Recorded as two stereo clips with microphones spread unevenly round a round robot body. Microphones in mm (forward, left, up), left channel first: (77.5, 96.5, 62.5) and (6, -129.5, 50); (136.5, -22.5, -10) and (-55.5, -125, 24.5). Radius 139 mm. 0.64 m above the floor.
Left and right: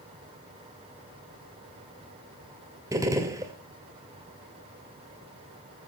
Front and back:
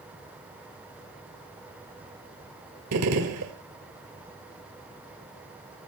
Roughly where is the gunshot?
Behind.